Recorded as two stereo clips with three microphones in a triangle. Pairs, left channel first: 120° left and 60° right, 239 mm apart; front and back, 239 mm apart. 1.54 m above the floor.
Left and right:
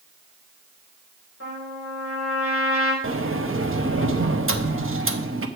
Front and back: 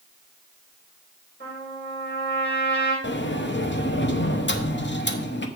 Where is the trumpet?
35° right, 5.5 m.